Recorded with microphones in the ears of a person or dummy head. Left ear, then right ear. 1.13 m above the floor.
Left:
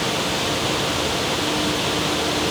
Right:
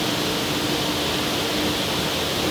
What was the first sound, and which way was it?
Only background noise.